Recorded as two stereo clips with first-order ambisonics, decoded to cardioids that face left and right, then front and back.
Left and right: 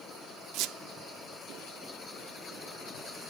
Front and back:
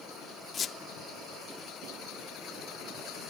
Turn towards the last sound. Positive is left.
turn(degrees=-60)